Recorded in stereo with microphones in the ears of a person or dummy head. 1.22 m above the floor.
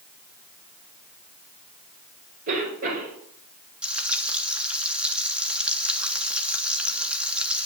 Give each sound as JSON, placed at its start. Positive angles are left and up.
{"t": 2.5, "sound": "a cough", "side_deg": -45, "distance_m": 4.5}
{"t": 3.8, "sound": "frying", "side_deg": -5, "distance_m": 1.2}